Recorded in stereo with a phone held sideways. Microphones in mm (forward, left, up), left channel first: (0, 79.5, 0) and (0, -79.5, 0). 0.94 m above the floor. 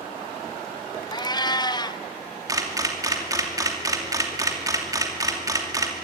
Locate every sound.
1.1 s a cat meowing: 25° left (ahead or behind), 0.5 m
2.5 s a camera shutter: 20° right (ahead or behind), 2.5 m